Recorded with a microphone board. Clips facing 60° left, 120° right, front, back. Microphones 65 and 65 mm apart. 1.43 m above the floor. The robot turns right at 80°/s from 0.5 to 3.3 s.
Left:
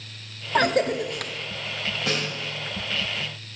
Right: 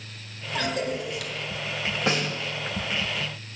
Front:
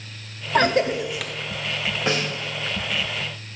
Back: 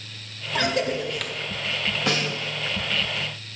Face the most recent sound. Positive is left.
turn(degrees=35)